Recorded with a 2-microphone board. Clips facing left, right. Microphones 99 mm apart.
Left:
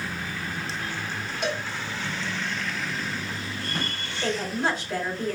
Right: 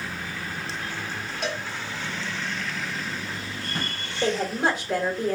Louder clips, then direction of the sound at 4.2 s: Right 3 dB; 65° right (ahead or behind).